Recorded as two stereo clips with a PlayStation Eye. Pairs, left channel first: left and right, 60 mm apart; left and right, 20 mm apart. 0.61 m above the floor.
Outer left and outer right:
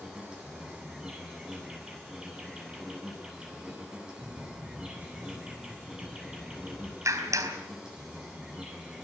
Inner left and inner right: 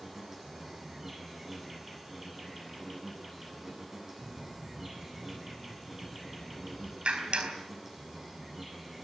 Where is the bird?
30° right (ahead or behind), 2 m.